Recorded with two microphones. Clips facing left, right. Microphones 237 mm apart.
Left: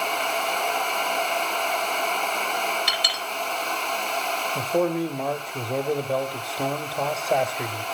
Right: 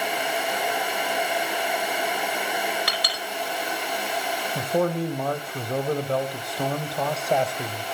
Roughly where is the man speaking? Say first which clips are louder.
Left 1 dB; centre.